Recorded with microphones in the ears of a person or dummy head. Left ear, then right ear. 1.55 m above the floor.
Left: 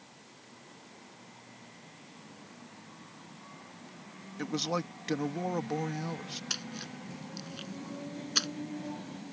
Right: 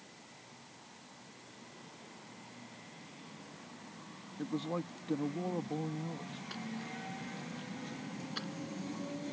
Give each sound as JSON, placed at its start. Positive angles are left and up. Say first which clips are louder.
{"t": 4.4, "sound": "a man speaking", "louder": "left 5 dB", "side_deg": 65}
{"t": 6.5, "sound": "a splash", "louder": "left 6 dB", "side_deg": 75}